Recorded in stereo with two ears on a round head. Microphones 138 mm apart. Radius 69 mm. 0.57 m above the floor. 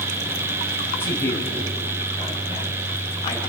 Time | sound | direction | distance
1.0 | a man speaking | 15° left (ahead or behind) | 4.5 m